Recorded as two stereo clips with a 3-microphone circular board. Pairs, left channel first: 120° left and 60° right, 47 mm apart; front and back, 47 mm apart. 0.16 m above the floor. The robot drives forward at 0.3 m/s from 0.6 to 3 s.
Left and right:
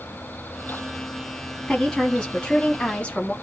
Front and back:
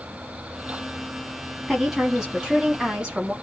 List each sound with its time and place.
1.7 s a woman speaking: 90° left, 1.2 m; by 3.3 s 135° left, 1.3 m